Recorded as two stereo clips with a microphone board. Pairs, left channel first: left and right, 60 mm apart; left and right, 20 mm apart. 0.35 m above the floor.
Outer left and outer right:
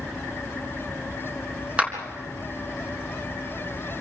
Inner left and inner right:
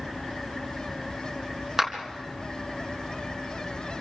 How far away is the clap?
About 3.5 m.